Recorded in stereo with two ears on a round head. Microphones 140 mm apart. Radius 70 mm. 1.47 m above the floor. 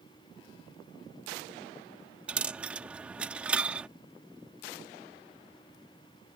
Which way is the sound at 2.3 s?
5° right (ahead or behind).